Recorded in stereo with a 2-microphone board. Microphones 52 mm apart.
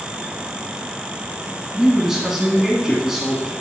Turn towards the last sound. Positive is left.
turn(degrees=-10)  # may be behind; listen again after turning